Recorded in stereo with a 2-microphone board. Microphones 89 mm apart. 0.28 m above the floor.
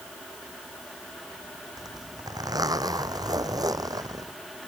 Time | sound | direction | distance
1.8 | a zipper | 45° right (ahead or behind) | ?